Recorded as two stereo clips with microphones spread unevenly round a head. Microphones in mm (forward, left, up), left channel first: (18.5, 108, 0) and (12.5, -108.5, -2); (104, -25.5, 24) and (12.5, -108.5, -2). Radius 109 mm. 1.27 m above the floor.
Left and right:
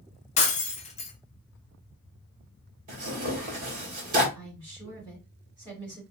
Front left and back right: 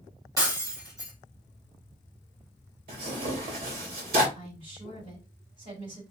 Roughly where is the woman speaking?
Behind.